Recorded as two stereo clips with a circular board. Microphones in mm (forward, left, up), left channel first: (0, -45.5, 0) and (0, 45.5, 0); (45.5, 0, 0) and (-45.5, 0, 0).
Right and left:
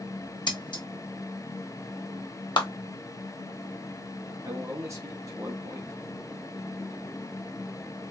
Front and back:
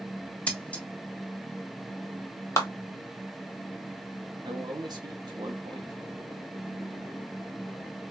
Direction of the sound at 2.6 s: 60° right.